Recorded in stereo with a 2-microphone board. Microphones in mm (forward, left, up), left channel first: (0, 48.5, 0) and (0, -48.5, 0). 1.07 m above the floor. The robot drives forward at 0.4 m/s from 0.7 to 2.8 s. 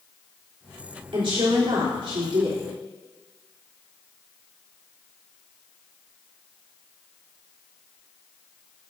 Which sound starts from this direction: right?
A woman speaking, at 1.1 s.